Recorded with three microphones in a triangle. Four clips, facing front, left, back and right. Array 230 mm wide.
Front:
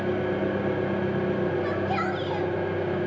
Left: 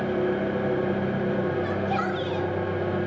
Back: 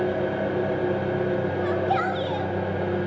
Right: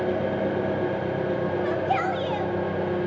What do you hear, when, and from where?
0.0 s an engine running: 120° right, 4.5 m
1.6 s a shout: 125° right, 1.1 m